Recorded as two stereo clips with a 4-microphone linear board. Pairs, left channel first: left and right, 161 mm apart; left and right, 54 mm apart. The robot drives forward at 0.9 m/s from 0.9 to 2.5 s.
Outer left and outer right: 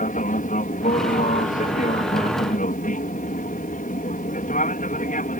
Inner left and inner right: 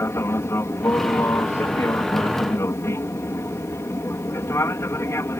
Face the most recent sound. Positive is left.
turn(degrees=55)  # may be behind; listen again after turning